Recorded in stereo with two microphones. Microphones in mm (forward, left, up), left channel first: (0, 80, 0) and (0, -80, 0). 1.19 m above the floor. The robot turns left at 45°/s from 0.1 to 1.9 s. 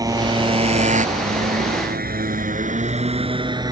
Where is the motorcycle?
25° right (ahead or behind).